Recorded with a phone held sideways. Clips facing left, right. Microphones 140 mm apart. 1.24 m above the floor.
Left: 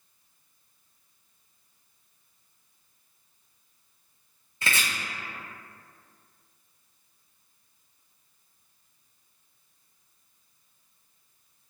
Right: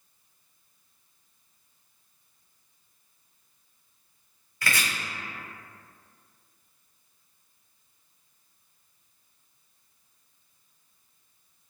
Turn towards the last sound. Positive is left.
turn(degrees=25)  # may be behind; listen again after turning